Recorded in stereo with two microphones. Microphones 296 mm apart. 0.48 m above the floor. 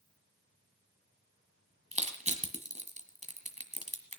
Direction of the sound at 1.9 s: 25° right (ahead or behind).